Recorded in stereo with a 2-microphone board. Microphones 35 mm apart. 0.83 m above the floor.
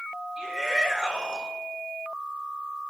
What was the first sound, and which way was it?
A shout, 15° right (ahead or behind).